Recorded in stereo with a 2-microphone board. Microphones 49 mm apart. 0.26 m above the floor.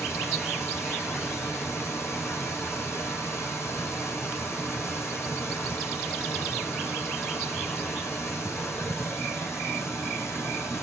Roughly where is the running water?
Left.